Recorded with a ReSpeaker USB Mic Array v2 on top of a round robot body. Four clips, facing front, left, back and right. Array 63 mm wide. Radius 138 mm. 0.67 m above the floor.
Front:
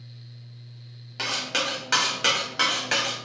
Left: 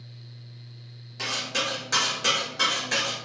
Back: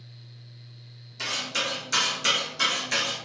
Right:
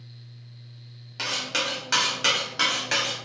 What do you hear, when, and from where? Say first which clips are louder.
1.2 s cutlery clinking: right 1 dB, front 2 dB; 30° right, 0.9 m